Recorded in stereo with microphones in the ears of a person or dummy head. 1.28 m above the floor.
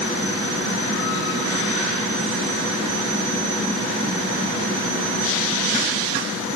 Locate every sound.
Only background noise.